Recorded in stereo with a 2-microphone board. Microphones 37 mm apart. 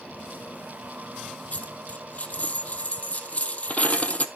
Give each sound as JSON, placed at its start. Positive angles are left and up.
{"t": 1.5, "sound": "a dropped coin", "side_deg": 40, "distance_m": 1.1}